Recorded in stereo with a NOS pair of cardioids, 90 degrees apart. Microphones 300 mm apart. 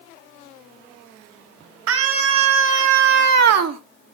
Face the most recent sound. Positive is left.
turn(degrees=-60)